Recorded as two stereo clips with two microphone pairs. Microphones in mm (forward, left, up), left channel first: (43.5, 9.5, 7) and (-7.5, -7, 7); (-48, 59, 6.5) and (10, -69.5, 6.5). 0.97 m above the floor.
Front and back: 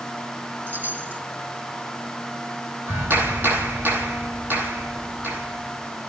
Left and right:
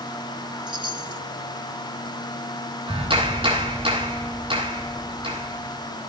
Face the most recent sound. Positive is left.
turn(degrees=-115)